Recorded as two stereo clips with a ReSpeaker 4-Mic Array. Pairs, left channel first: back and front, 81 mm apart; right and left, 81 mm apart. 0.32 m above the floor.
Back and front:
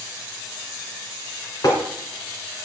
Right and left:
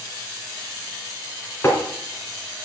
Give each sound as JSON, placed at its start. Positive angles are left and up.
{"t": 1.6, "sound": "tapping", "azimuth_deg": -150, "distance_m": 3.0}